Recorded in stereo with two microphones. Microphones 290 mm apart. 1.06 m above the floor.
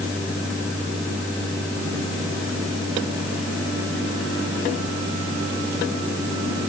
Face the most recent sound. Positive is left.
No sound to turn to.